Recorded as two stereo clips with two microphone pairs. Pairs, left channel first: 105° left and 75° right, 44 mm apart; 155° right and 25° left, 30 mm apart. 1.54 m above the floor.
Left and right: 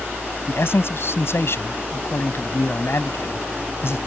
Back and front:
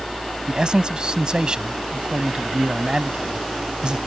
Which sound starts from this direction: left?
A man speaking, at 0.5 s.